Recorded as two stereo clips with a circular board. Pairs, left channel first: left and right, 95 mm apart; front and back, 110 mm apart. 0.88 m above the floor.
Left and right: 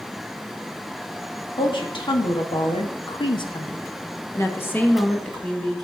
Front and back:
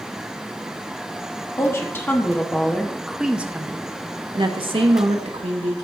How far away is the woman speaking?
About 1.5 m.